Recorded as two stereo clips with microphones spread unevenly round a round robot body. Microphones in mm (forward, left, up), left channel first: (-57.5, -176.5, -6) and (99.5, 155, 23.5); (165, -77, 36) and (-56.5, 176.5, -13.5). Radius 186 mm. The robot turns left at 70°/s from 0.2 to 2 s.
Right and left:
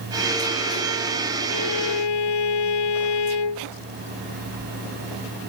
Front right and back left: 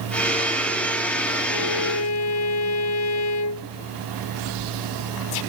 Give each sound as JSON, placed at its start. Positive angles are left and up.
{"t": 1.5, "sound": "a violin", "azimuth_deg": -65}